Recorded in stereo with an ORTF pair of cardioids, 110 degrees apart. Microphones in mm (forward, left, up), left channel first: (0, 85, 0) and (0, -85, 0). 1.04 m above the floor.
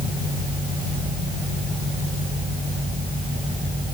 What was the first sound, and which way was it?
Only background noise.